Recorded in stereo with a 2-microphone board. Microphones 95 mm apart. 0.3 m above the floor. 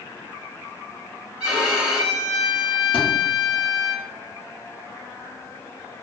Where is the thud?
70° left (ahead or behind), 1.3 m.